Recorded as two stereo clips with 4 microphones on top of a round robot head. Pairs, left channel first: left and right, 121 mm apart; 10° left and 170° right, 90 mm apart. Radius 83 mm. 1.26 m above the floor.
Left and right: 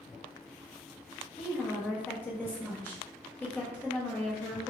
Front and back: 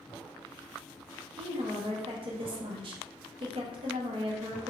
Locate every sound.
1.4 s a woman speaking: 165° left, 0.8 m